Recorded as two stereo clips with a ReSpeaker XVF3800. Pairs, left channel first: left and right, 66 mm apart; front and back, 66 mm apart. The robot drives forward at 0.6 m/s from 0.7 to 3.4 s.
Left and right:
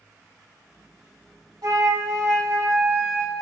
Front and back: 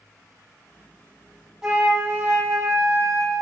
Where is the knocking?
I don't hear knocking.